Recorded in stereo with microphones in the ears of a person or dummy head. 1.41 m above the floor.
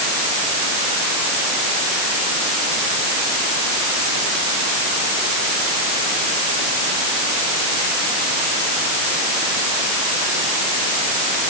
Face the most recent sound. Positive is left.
No sound to turn to.